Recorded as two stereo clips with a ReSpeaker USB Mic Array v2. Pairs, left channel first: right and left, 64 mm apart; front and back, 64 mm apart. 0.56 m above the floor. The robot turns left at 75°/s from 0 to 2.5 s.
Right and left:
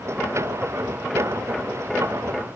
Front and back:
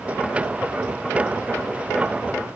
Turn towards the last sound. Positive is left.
No sound to turn to.